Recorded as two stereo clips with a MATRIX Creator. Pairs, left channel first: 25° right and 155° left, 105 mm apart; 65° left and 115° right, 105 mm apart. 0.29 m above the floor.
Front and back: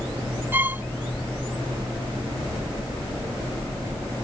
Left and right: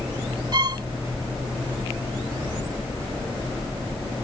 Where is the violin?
140° right.